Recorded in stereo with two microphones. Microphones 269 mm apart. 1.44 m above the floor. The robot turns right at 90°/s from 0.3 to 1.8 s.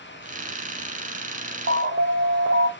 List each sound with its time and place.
1.7 s an alarm: 45° right (ahead or behind), 1.0 m